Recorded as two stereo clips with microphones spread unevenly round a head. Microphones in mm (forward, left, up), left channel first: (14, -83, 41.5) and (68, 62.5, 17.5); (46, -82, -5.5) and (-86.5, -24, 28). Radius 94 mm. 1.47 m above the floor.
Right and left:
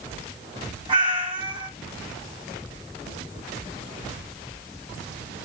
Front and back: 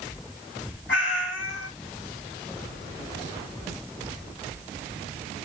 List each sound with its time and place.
0.9 s a cat meowing: 10° left, 3 m